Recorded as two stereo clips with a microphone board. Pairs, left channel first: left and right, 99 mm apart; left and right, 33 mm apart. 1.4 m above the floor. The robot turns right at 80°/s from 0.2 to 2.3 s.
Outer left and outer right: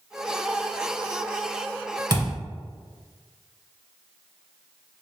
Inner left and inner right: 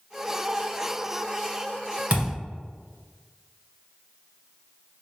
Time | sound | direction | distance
2.1 | a thud | 45° right (ahead or behind) | 1.8 m